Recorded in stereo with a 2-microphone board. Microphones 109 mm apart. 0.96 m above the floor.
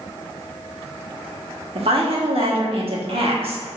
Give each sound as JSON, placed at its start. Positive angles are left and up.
{"t": 1.8, "sound": "a woman speaking", "side_deg": -60, "distance_m": 1.2}